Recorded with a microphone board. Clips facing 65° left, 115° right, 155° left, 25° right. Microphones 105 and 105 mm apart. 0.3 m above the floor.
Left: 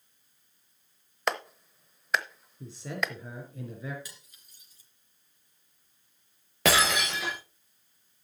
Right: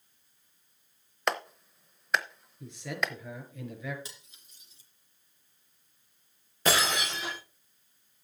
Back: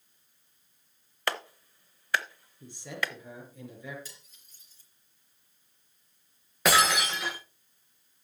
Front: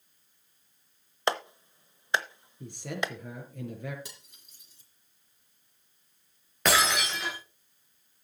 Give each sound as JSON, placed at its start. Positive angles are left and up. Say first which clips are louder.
{"t": 1.3, "sound": "a clap", "louder": "even, front 4 dB", "azimuth_deg": -20, "distance_m": 0.7}
{"t": 2.6, "sound": "a man speaking", "louder": "even, front 3 dB", "azimuth_deg": 10, "distance_m": 4.5}
{"t": 4.0, "sound": "cutlery clinking", "louder": "right 2 dB, front 2 dB", "azimuth_deg": -45, "distance_m": 3.0}
{"t": 6.7, "sound": "breaking glass", "louder": "left 3 dB, back 2 dB", "azimuth_deg": 70, "distance_m": 5.5}